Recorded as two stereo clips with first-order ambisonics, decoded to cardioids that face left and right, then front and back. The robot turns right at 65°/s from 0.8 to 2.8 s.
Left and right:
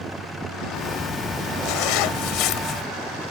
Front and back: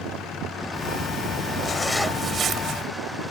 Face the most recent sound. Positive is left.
turn(degrees=140)